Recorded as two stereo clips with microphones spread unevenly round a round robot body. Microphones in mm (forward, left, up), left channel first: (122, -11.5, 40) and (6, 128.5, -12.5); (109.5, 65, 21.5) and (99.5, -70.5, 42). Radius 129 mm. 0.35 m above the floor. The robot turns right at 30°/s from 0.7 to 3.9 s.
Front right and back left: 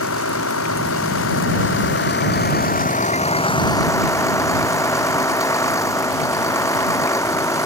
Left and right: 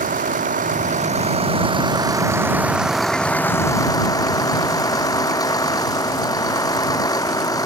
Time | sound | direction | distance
0.0 | a vehicle | 75° right | ?